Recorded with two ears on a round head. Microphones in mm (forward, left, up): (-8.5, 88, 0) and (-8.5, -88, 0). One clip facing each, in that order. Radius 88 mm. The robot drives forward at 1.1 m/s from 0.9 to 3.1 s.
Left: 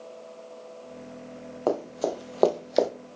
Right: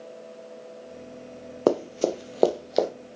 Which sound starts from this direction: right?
Running footsteps, at 1.7 s.